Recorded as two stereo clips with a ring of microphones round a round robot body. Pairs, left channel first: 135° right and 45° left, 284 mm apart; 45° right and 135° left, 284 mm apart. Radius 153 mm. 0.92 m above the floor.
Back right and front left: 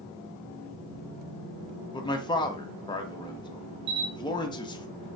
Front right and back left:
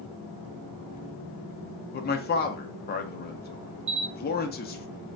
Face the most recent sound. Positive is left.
turn(degrees=85)